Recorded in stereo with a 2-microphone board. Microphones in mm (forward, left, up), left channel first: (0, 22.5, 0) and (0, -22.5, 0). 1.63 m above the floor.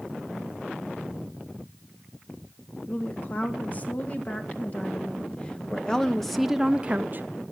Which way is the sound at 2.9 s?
40° left (ahead or behind).